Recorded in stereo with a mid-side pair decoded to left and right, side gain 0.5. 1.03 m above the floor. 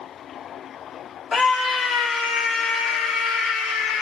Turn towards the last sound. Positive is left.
turn(degrees=70)